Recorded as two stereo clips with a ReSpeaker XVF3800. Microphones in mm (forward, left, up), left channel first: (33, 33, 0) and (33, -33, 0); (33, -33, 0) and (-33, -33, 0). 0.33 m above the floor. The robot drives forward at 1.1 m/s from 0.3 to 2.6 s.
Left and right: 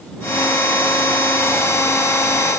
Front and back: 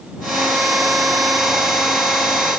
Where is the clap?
I don't hear a clap.